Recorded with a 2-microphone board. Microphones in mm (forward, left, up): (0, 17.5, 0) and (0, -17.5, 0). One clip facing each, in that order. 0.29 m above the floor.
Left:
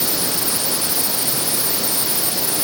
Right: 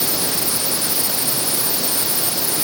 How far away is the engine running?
I don't hear an engine running.